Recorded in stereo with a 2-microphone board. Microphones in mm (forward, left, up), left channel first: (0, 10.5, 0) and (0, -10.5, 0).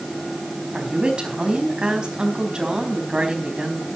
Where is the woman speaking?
45° right (ahead or behind), 4.5 m.